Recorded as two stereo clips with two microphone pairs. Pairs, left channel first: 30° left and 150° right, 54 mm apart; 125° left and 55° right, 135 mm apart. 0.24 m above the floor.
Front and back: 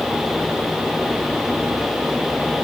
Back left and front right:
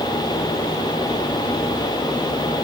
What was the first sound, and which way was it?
Only background noise.